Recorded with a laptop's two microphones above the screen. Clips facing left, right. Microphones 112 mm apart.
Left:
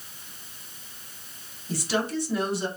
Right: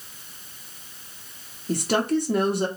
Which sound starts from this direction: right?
A woman speaking, at 1.7 s.